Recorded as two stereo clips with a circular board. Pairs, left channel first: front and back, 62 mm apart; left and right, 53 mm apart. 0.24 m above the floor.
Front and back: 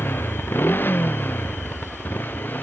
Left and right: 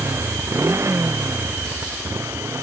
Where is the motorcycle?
55° right; by 2.6 s 60° right.